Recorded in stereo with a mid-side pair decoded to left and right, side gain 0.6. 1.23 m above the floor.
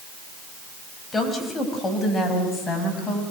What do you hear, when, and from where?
1.1 s a woman speaking: 20° left, 6 m; by 3.2 s 35° left, 7.5 m